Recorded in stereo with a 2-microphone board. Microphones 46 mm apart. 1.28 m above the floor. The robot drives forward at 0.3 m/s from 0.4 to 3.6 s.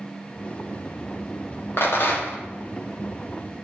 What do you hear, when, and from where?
1.8 s a rattle: 55° left (ahead or behind), 0.7 m; by 2.4 s 45° left (ahead or behind), 0.8 m